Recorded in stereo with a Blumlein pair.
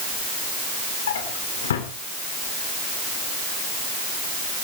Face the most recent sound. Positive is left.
turn(degrees=60)